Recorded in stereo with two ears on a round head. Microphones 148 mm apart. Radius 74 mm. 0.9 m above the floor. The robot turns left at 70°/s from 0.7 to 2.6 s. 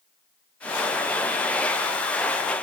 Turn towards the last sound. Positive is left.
No sound to turn to.